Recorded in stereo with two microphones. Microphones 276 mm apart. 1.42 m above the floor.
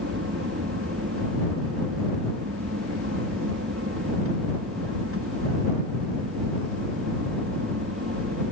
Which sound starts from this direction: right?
An aircraft, at 0.0 s.